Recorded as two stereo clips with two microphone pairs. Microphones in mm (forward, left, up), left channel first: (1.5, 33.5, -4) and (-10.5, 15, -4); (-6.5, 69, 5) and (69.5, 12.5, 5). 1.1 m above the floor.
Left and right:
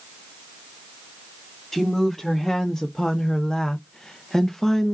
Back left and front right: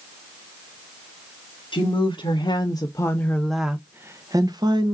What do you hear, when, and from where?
1.7 s a woman speaking: 130° left, 1.1 m; by 4.9 s 10° right, 0.9 m